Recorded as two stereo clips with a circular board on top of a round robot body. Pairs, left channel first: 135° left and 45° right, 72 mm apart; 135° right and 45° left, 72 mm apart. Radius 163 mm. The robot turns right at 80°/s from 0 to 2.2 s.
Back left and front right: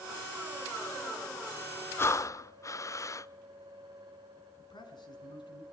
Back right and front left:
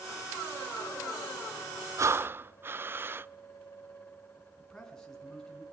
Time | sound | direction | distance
2.0 | breathing | 80° left | 0.6 m
4.6 | a man speaking | 145° left | 4.5 m